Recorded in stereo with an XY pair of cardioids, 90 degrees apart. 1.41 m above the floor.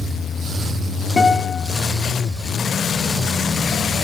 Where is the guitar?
35° left, 1.4 m.